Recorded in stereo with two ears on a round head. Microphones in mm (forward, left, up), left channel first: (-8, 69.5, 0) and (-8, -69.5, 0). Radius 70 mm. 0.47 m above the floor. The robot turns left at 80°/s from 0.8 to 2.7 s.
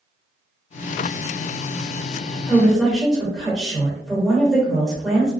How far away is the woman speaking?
About 1.4 m.